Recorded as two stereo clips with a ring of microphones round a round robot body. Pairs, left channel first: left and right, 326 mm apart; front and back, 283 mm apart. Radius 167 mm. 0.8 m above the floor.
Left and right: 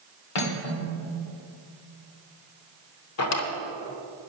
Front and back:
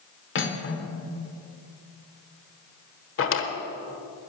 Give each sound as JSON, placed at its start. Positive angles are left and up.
{"t": 0.3, "sound": "cutlery clinking", "azimuth_deg": 50, "distance_m": 1.6}
{"t": 3.2, "sound": "a drawer", "azimuth_deg": 45, "distance_m": 1.3}